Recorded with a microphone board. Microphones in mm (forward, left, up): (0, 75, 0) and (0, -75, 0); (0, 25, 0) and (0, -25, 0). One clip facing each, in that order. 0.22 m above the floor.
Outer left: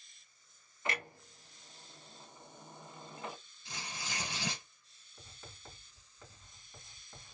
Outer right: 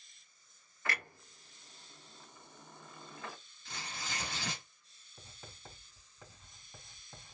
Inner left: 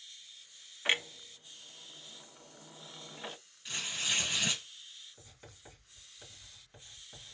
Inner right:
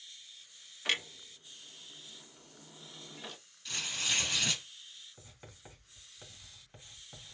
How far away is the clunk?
About 0.5 m.